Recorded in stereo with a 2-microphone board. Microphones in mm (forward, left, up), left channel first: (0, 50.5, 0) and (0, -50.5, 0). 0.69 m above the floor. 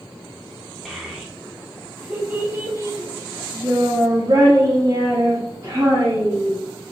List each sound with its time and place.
0.8 s a child speaking: centre (ahead or behind), 1.5 m; by 6.6 s 35° right (ahead or behind), 1.9 m